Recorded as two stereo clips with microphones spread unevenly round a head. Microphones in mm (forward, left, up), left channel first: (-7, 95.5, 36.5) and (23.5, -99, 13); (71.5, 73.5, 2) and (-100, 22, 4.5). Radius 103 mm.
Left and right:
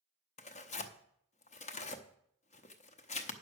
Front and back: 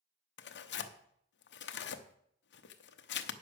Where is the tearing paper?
40° left, 0.8 m.